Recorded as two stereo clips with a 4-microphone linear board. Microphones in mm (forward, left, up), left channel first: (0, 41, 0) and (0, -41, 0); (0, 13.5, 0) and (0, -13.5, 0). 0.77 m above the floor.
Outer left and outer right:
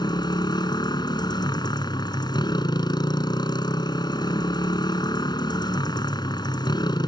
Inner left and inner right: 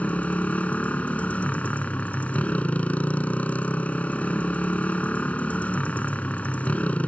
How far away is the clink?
No clink in this recording.